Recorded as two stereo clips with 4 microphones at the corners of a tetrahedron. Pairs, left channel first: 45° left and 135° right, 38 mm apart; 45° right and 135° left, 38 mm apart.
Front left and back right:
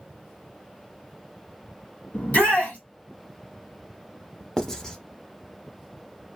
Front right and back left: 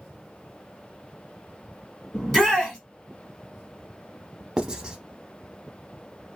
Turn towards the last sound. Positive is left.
turn(degrees=105)